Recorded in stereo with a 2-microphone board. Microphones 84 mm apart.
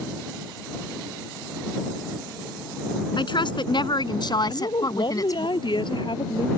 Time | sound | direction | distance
3.2 | a woman speaking | 75° left (ahead or behind) | ?
4.5 | a woman speaking | 70° left (ahead or behind) | ?